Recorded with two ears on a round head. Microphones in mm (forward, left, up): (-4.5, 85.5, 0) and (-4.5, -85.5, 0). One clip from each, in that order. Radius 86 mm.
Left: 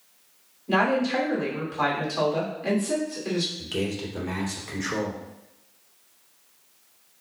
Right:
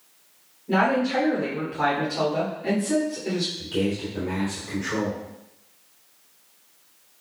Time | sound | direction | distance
0.7 | a woman speaking | 45° left (ahead or behind) | 3 m
3.6 | a man speaking | 60° left (ahead or behind) | 3 m